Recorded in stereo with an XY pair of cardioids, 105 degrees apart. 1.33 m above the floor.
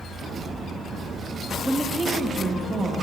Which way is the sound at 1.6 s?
5° right.